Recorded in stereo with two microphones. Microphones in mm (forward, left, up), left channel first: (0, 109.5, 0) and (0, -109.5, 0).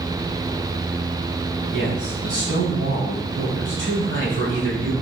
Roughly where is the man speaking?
Right.